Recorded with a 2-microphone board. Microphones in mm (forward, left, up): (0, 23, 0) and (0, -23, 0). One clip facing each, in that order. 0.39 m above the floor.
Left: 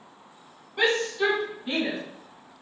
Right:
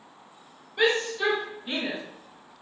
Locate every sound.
0.8 s a shout: 15° left (ahead or behind), 3.5 m; by 2.0 s 10° left (ahead or behind), 2.5 m